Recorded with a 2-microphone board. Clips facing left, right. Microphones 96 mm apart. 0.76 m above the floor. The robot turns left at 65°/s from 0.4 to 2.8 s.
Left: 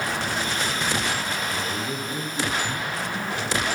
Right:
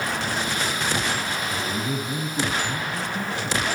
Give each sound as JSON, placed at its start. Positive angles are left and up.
{"t": 1.5, "sound": "a man speaking", "azimuth_deg": -120, "distance_m": 9.0}